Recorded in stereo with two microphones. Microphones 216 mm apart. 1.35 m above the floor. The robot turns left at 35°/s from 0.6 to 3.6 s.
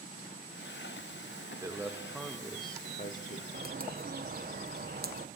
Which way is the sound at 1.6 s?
165° right.